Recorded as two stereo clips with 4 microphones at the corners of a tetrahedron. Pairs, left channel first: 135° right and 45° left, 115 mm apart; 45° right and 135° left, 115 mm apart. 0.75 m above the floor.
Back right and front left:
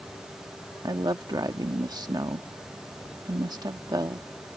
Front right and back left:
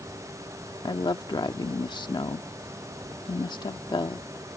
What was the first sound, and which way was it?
A woman speaking, 5° right.